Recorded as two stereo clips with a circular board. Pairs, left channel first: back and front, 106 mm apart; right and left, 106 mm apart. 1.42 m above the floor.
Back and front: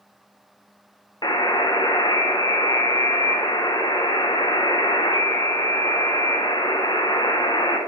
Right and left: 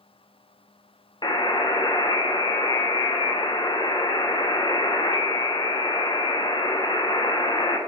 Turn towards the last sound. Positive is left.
turn(degrees=-135)